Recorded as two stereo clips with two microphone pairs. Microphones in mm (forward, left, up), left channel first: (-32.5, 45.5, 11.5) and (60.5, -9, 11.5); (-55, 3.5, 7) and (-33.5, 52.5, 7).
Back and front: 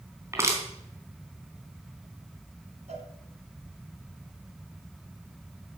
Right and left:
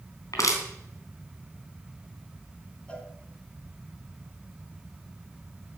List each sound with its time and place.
0.3 s crushing: 95° right, 3.5 m
2.9 s a cowbell: 45° right, 2.5 m